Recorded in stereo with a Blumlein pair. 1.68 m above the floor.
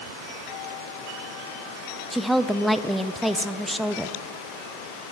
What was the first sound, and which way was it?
A woman speaking, 5° left.